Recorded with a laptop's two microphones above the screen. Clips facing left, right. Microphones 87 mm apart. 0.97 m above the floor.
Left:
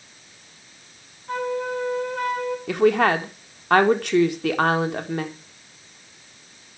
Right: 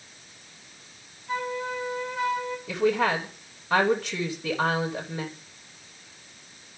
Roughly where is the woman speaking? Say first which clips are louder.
Left 6 dB; left.